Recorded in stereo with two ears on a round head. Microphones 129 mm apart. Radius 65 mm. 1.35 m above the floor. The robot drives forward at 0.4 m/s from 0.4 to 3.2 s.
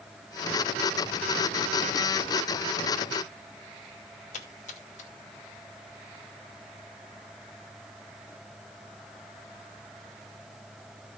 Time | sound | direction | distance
4.3 | a splash | 55° left (ahead or behind) | 2.5 m